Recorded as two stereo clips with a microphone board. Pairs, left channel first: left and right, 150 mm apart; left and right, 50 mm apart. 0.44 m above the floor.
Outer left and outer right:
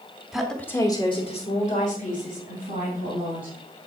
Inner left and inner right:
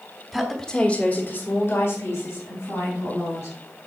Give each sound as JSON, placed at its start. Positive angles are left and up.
{"t": 0.3, "sound": "a woman speaking", "side_deg": -5, "distance_m": 1.2}